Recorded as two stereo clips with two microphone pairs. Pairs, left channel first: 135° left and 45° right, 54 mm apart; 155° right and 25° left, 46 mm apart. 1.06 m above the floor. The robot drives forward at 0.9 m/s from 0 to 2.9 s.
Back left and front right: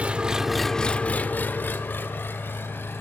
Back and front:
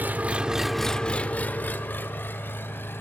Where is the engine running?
10° left, 0.9 m; by 3.0 s 175° left, 2 m.